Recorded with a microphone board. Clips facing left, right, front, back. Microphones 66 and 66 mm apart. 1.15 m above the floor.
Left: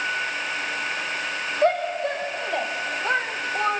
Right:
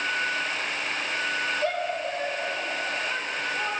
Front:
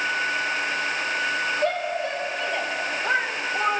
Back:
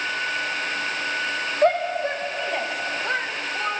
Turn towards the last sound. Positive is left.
turn(degrees=65)